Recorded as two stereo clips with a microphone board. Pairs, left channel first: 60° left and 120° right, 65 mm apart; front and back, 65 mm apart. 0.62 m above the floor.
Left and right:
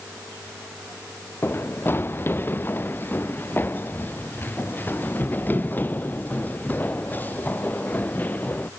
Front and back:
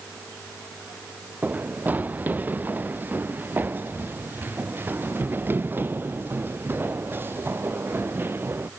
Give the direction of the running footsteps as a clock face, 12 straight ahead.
8 o'clock.